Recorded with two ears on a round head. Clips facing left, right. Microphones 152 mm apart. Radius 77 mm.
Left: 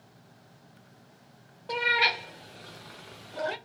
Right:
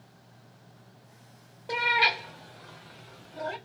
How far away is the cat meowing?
About 0.7 m.